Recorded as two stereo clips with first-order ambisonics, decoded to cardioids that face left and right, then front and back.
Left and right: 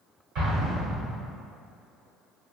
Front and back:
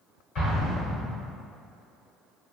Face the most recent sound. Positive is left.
turn(degrees=-50)